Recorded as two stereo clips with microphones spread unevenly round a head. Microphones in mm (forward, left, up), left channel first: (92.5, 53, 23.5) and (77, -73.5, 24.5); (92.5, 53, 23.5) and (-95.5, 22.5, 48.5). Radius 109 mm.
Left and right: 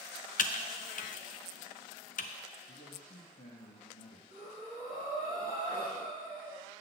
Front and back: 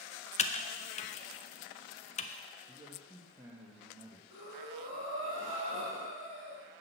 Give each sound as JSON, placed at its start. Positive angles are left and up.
{"t": 0.4, "sound": "typing on a keyboard", "azimuth_deg": 65, "distance_m": 0.6}
{"t": 2.7, "sound": "a man speaking", "azimuth_deg": 110, "distance_m": 1.3}
{"t": 4.3, "sound": "breathing", "azimuth_deg": 130, "distance_m": 4.5}